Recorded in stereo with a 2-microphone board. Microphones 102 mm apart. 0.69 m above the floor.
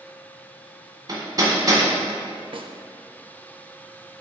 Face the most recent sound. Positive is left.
turn(degrees=-55)  # may be behind; listen again after turning